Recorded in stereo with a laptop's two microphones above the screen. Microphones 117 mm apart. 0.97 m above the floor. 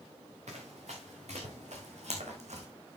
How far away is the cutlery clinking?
No cutlery clinking in this recording.